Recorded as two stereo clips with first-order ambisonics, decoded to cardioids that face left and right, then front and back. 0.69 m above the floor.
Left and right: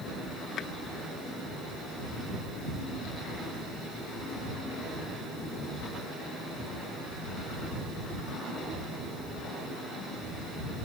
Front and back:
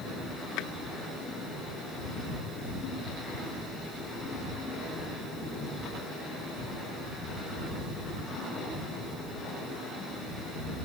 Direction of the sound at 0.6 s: 35° left.